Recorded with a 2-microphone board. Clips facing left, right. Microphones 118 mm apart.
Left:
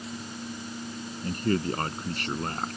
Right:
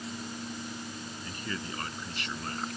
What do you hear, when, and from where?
1.2 s a man speaking: 50° left (ahead or behind); by 2.8 s 45° left (ahead or behind)